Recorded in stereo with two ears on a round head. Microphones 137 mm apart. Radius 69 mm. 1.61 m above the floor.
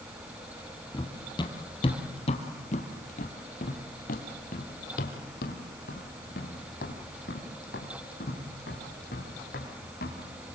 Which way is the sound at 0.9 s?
25° left (ahead or behind).